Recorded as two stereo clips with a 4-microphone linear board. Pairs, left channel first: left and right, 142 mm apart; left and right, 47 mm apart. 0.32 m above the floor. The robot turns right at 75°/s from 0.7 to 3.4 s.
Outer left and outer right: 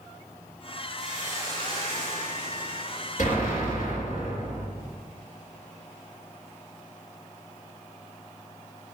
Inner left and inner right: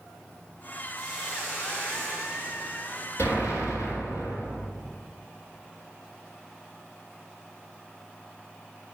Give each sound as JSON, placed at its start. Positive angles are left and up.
{"t": 1.0, "sound": "a hiss", "azimuth_deg": 175, "distance_m": 2.5}
{"t": 3.2, "sound": "an explosion", "side_deg": 65, "distance_m": 2.5}